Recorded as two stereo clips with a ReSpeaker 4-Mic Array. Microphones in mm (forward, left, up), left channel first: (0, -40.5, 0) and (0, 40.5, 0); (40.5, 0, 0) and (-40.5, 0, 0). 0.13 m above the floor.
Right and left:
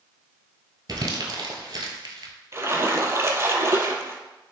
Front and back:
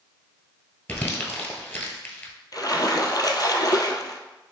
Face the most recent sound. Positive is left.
turn(degrees=35)